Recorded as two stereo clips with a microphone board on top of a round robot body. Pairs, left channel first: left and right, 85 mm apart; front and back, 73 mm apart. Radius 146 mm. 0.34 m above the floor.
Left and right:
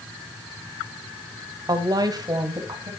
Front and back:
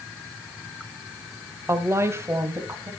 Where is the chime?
No chime in this recording.